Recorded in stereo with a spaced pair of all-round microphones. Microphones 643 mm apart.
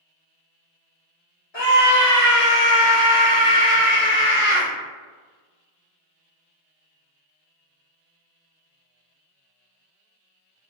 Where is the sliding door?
No sliding door in this recording.